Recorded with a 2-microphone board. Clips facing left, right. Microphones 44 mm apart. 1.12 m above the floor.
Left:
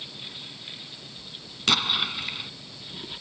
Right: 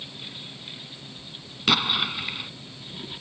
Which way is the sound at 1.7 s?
5° right (ahead or behind).